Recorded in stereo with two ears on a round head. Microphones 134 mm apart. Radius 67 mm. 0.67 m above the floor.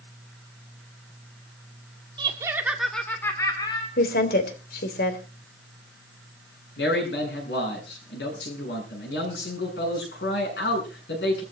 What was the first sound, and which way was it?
Laughter, 30° right (ahead or behind).